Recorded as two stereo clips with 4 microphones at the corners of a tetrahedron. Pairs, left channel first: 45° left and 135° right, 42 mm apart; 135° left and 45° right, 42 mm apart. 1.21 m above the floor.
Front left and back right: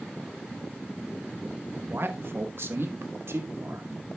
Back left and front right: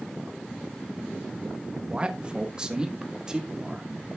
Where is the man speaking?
105° right, 1.1 m; by 3.9 s 120° right, 2.5 m.